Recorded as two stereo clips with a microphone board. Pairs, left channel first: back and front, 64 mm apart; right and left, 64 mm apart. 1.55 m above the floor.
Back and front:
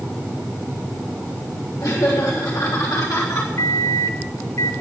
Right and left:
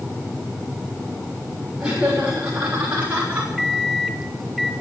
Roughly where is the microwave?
Behind.